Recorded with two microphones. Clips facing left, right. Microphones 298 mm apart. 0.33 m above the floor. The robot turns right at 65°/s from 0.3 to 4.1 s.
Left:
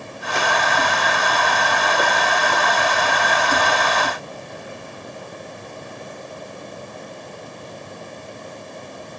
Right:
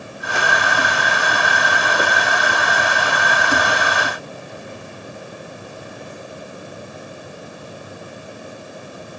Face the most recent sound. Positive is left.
No sound to turn to.